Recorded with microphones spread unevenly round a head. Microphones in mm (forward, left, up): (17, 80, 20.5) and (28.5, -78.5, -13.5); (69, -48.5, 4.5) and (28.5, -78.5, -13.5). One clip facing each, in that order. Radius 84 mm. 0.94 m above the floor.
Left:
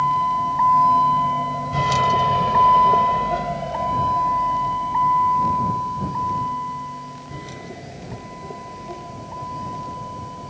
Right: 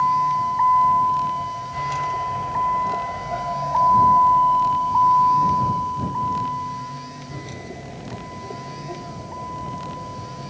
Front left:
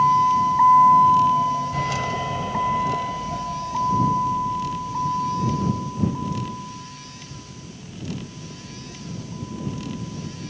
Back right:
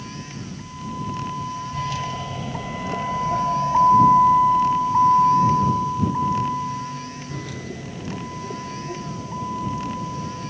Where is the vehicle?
55° left; by 10.5 s 170° right.